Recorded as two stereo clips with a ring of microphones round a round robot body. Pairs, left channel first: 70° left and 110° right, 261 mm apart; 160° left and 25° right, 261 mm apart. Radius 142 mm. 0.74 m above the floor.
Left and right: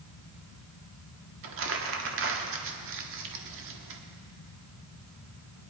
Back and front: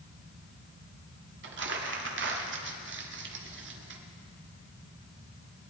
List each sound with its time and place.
1.4 s crumpling: 70° right, 1.3 m